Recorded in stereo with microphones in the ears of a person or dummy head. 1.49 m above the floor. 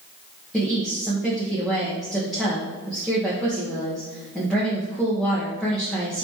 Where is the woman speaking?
Centre (ahead or behind), 1.1 m.